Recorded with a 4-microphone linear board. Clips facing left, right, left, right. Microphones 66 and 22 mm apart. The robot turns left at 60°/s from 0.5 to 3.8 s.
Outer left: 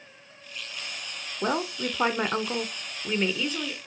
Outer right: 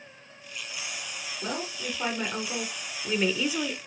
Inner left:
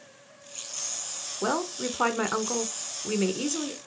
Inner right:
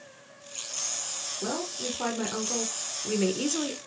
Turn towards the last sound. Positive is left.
turn(degrees=-30)